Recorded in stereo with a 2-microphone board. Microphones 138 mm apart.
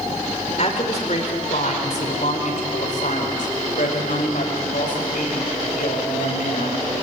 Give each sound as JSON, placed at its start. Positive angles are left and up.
{"t": 0.6, "sound": "a woman speaking", "side_deg": 50, "distance_m": 4.0}